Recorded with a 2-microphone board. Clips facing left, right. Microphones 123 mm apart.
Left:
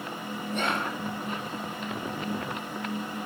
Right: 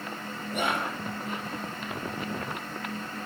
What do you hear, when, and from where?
0.5 s whispering: 10° right (ahead or behind), 1.9 m